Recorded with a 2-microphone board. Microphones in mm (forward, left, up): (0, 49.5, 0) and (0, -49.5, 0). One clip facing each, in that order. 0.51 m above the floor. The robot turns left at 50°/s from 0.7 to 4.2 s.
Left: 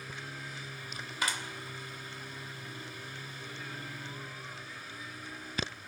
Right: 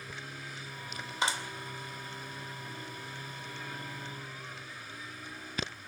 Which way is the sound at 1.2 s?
25° right (ahead or behind).